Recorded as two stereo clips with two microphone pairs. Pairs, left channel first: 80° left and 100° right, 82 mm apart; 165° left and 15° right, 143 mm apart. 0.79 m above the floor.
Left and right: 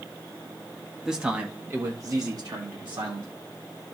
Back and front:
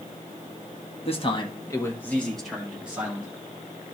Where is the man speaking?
175° left, 1.4 m; by 3.3 s 90° right, 2.5 m.